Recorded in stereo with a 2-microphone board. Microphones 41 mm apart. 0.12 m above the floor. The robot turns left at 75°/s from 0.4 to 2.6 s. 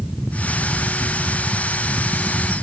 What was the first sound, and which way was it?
Only background noise.